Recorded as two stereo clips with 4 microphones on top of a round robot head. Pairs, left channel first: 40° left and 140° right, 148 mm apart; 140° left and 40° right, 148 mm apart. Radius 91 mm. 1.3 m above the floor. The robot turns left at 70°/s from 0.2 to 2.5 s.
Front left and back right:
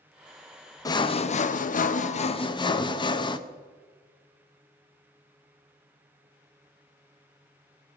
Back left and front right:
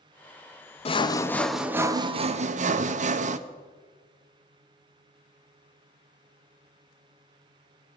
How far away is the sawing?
About 0.9 m.